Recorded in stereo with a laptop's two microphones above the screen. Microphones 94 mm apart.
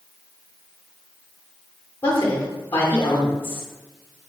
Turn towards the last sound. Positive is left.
turn(degrees=20)  # may be behind; listen again after turning